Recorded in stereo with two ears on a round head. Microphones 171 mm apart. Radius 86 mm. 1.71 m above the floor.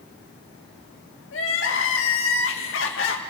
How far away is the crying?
About 2.5 m.